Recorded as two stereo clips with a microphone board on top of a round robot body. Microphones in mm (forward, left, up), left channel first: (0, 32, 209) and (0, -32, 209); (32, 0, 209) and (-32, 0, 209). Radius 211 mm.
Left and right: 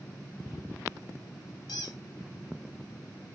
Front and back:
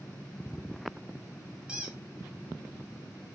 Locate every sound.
1.7 s a squeak: 100° left, 0.6 m